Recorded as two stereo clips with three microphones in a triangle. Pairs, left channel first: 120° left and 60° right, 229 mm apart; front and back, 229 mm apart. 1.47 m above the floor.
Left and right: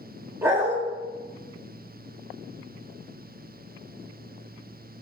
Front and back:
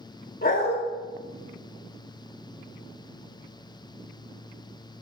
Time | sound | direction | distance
0.4 | a dog barking | 20° left | 1.1 m